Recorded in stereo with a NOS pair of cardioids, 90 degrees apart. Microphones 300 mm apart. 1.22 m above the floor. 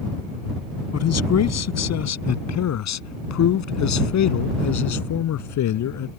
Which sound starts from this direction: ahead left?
A man speaking, at 0.9 s.